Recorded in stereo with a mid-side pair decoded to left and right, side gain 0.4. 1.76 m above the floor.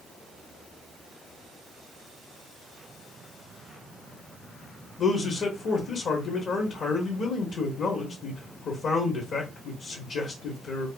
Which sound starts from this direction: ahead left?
A man speaking, at 5.0 s.